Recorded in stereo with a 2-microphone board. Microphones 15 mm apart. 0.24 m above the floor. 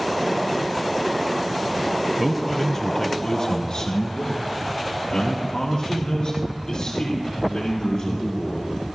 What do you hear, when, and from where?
2.2 s a man speaking: 10° right (ahead or behind), 1.0 m; by 8.8 s 80° left, 8 m